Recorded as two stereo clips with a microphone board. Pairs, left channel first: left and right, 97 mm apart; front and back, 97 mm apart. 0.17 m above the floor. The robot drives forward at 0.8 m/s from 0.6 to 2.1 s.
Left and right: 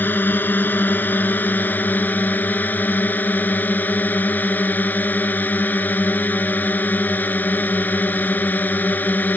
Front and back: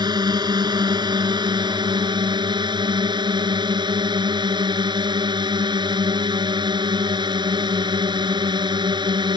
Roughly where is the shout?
No shout in this recording.